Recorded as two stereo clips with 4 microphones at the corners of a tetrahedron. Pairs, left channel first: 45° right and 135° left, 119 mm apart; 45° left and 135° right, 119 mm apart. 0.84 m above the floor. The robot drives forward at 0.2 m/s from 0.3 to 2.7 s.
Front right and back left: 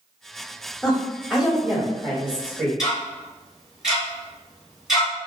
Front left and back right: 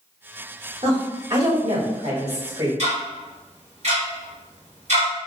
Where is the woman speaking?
140° right, 1.3 m; by 2.7 s 150° right, 1.6 m.